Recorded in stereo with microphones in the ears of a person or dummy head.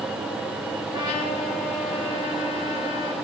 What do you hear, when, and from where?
0.9 s a trumpet: 40° left (ahead or behind), 7 m